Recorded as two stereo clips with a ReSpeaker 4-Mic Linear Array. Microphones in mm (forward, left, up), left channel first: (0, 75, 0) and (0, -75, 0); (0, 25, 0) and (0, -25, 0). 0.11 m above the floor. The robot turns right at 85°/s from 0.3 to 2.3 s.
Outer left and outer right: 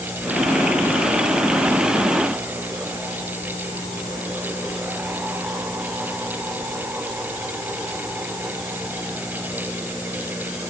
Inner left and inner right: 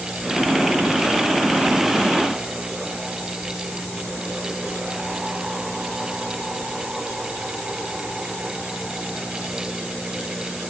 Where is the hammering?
I don't hear hammering.